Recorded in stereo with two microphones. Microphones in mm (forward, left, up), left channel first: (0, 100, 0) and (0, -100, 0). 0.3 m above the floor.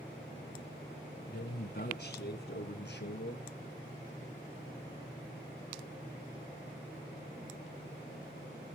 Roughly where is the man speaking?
Left.